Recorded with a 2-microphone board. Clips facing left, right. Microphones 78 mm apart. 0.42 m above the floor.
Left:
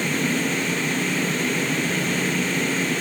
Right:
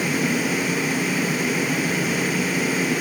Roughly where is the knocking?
I don't hear knocking.